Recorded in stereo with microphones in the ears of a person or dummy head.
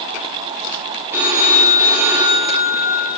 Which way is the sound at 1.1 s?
15° right (ahead or behind).